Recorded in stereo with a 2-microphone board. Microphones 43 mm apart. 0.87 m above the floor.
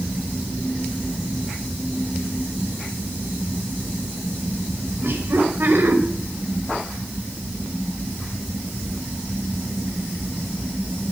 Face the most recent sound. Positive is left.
turn(degrees=-60)  # may be behind; listen again after turning